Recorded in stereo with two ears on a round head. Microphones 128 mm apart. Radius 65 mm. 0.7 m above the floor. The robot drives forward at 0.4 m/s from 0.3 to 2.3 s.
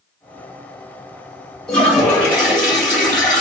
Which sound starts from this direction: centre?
A toilet flushing, at 1.7 s.